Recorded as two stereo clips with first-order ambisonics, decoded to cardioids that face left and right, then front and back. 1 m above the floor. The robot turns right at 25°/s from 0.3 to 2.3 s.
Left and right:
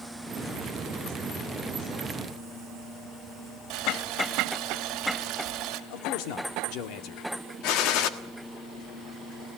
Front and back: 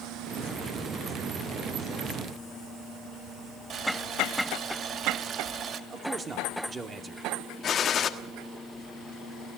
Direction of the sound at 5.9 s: 110° left.